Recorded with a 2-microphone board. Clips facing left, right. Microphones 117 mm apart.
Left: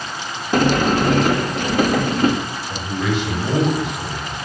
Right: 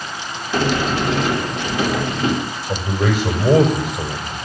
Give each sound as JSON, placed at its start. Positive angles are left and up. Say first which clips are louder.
{"t": 0.5, "sound": "a sliding door", "louder": "left 3 dB", "side_deg": 45, "distance_m": 2.5}
{"t": 2.7, "sound": "a man speaking", "louder": "right 3 dB", "side_deg": -40, "distance_m": 5.5}